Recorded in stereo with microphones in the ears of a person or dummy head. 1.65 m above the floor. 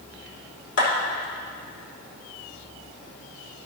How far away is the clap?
About 3.5 m.